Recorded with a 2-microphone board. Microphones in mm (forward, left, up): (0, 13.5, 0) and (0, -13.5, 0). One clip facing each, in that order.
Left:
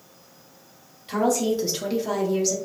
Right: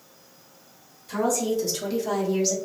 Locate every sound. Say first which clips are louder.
1.1 s a woman speaking: left 2 dB; 55° left (ahead or behind), 1.3 m; by 2.5 s 15° right (ahead or behind), 1.0 m